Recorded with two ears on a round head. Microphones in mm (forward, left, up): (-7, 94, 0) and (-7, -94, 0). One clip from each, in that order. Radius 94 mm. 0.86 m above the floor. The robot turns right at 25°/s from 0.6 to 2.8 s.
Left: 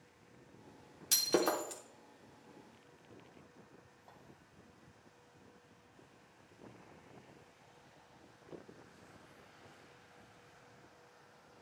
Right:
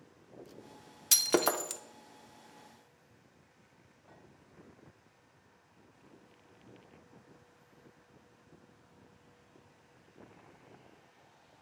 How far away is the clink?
About 2.5 m.